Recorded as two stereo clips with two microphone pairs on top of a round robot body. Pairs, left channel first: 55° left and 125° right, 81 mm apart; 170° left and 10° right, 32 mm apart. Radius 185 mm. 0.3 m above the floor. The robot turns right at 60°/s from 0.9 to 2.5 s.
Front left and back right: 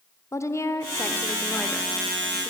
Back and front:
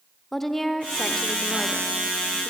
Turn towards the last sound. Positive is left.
turn(degrees=-175)